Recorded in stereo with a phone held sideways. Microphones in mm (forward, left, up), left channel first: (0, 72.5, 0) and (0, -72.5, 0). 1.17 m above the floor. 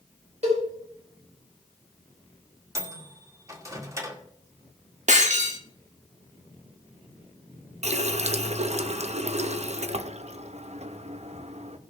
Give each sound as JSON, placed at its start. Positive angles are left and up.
{"t": 0.4, "sound": "a cowbell", "side_deg": -50, "distance_m": 5.0}
{"t": 2.8, "sound": "a microwave", "side_deg": -20, "distance_m": 1.8}
{"t": 5.1, "sound": "breaking glass", "side_deg": -55, "distance_m": 1.4}
{"t": 7.8, "sound": "a running tap", "side_deg": -50, "distance_m": 0.7}